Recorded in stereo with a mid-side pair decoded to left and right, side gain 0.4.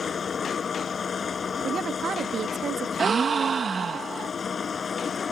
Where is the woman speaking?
60° right.